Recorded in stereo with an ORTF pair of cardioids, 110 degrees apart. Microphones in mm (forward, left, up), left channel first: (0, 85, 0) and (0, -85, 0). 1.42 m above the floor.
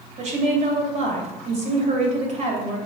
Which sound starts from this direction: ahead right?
A woman speaking, at 0.2 s.